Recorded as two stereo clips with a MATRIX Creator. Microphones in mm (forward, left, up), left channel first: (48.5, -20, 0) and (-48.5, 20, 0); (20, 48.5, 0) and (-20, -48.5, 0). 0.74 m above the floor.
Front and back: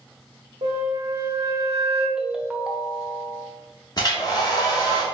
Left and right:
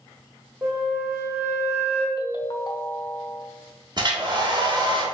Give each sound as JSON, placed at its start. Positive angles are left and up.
{"t": 0.6, "sound": "a flute", "azimuth_deg": 175, "distance_m": 1.0}
{"t": 2.2, "sound": "a ringtone", "azimuth_deg": 80, "distance_m": 0.5}
{"t": 4.0, "sound": "a hair dryer", "azimuth_deg": -70, "distance_m": 1.1}